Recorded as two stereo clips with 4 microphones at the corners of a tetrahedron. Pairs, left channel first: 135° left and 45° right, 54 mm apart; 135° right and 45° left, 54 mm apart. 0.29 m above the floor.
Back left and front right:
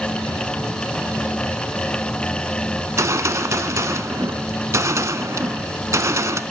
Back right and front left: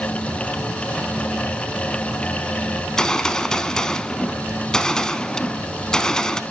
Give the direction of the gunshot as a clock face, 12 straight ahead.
2 o'clock.